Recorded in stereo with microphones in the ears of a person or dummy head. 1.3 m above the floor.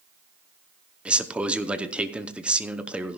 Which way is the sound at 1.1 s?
5° right (ahead or behind).